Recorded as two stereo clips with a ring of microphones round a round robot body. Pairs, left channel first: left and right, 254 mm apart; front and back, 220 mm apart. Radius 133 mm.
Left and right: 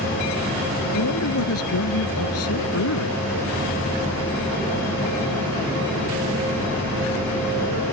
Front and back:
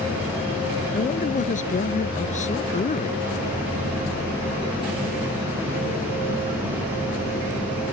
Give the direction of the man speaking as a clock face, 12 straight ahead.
10 o'clock.